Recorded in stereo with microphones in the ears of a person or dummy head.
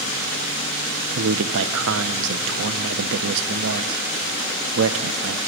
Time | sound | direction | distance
1.1 | a man speaking | 70° right (ahead or behind) | 1.0 m